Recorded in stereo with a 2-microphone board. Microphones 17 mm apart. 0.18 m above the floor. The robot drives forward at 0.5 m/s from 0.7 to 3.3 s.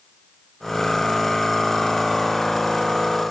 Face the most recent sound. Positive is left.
No sound to turn to.